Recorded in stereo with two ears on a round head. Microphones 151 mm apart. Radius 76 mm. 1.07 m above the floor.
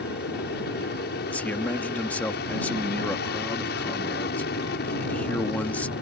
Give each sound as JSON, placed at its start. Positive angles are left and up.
{"t": 0.0, "sound": "an aircraft", "side_deg": 65}
{"t": 1.3, "sound": "a man speaking", "side_deg": 10}